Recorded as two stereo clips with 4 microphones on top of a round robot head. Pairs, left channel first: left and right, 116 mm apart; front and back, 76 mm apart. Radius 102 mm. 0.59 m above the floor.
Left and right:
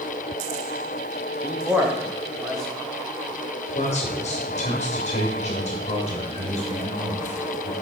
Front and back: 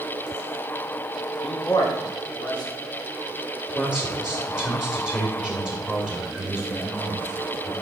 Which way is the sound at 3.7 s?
80° left.